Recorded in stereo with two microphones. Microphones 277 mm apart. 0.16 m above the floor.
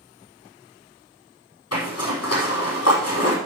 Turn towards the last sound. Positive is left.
turn(degrees=60)  # may be behind; listen again after turning